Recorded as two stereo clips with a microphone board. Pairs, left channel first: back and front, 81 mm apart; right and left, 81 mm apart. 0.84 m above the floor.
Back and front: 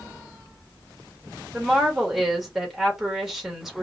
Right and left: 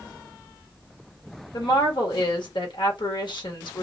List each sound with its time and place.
1.5 s a woman speaking: 85° right, 1.1 m